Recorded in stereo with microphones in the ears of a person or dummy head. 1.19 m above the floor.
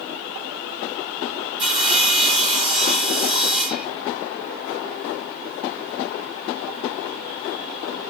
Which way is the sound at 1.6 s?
Centre (ahead or behind).